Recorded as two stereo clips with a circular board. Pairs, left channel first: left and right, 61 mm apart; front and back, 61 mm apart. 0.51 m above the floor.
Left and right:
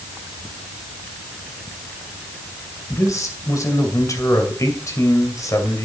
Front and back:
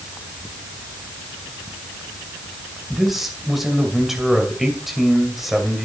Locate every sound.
2.9 s a man speaking: 95° left, 2.5 m